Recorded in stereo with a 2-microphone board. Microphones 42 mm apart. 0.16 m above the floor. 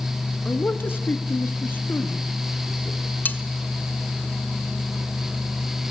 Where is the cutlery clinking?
45° left (ahead or behind), 1.2 m.